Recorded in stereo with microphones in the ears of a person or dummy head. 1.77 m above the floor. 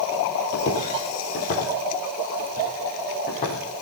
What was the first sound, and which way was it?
Footsteps, 50° left (ahead or behind).